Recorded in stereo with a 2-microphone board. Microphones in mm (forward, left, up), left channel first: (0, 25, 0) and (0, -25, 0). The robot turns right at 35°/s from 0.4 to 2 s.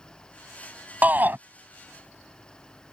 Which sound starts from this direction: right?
A shout, at 1.0 s.